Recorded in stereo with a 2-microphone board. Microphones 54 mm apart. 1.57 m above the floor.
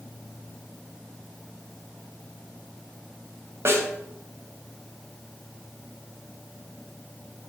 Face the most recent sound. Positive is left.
turn(degrees=-55)  # may be behind; listen again after turning